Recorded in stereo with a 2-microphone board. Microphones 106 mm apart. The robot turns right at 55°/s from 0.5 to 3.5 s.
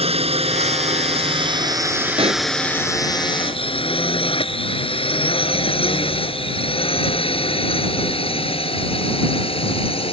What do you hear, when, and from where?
0.0 s a drone: 70° right (ahead or behind); by 10.1 s 60° left (ahead or behind)
2.2 s a pop: 60° right (ahead or behind); by 2.5 s 75° right (ahead or behind)